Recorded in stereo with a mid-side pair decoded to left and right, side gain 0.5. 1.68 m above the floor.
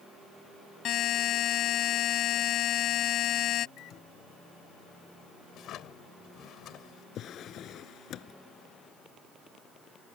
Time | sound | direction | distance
0.8 | a buzzer | 65° left | ?
3.8 | a microwave | 70° left | ?
5.5 | a drawer | 65° left | ?
7.2 | a drawer | 65° left | ?